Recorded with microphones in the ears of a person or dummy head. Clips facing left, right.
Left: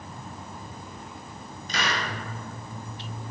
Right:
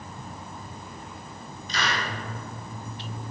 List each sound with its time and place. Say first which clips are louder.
1.7 s a hiss: even; 45° left (ahead or behind), 1.6 m